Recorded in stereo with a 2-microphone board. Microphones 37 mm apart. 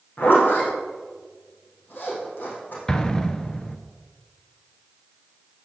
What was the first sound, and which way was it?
A zipper, 55° left (ahead or behind).